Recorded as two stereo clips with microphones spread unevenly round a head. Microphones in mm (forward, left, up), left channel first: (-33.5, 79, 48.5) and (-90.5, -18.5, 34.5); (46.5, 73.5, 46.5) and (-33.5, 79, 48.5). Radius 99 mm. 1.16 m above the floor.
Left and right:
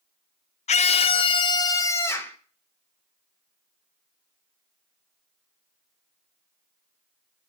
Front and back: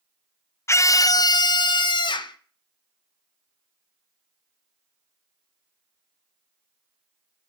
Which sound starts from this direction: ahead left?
A scream, at 0.7 s.